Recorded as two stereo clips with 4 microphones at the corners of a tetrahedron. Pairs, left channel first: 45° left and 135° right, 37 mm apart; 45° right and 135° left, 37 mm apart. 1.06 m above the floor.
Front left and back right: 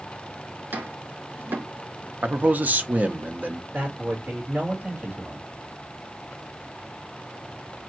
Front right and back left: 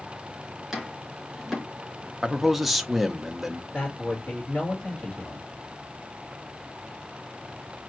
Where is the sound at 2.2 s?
140° right, 0.7 m.